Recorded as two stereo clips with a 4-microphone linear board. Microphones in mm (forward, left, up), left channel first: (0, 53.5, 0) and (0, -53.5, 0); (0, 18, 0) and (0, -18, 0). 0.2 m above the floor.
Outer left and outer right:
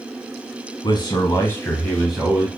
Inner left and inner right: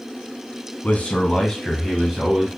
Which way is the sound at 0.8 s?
45° left (ahead or behind).